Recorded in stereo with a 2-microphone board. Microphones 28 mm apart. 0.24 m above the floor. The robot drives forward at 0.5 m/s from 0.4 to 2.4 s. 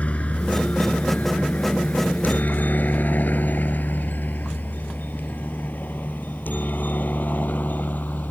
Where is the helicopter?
45° left (ahead or behind); by 8.3 s 70° left (ahead or behind).